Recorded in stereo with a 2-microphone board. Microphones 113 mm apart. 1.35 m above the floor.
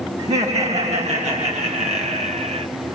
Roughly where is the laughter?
Right.